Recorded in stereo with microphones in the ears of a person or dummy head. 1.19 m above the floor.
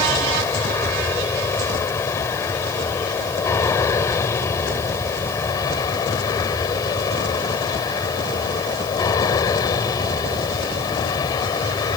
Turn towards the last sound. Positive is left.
turn(degrees=25)  # may be behind; listen again after turning